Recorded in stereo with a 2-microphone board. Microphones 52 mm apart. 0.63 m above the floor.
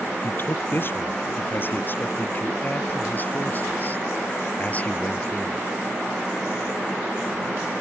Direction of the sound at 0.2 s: 45° left (ahead or behind).